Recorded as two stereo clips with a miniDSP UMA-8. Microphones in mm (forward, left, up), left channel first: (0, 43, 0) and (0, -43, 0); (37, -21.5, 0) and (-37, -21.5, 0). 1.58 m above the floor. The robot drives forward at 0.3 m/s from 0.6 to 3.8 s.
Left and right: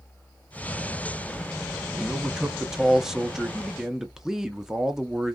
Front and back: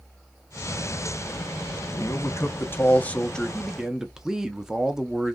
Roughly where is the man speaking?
Ahead.